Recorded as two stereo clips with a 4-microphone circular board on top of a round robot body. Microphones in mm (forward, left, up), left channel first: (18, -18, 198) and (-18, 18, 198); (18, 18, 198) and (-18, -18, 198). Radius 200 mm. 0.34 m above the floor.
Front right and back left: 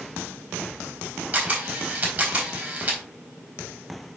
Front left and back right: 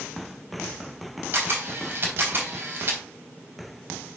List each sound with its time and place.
1.3 s a camera shutter: straight behind, 3.5 m